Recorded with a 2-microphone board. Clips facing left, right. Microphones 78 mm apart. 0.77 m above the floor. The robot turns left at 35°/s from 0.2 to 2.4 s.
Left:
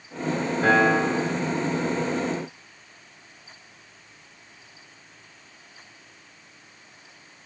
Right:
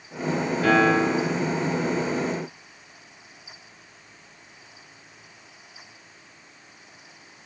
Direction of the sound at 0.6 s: 40° left (ahead or behind).